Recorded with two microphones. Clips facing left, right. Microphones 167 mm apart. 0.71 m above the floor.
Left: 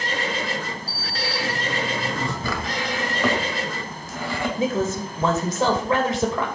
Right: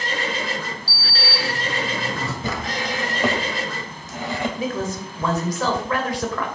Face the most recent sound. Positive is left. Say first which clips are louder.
# left 3 dB
turn(degrees=25)  # may be behind; listen again after turning